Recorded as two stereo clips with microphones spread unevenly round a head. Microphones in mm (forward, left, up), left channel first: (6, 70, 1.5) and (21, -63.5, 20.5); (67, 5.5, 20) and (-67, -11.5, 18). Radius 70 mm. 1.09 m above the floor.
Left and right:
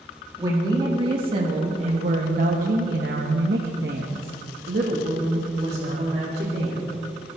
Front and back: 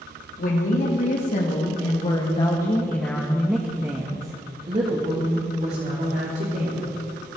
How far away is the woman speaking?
About 2.5 m.